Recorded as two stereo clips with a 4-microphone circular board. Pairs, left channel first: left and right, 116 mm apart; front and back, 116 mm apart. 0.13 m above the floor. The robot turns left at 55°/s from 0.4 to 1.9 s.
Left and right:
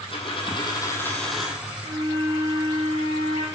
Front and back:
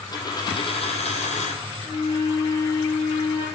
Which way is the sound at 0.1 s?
55° left.